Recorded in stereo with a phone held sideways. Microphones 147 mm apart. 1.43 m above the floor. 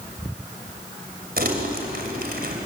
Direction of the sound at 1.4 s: 75° right (ahead or behind).